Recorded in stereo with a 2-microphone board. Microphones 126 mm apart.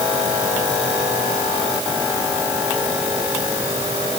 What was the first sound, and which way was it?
Only background noise.